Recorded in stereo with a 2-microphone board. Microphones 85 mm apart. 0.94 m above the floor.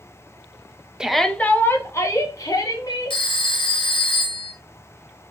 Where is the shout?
10° right (ahead or behind), 0.6 m; by 3.2 s 45° left (ahead or behind), 2 m.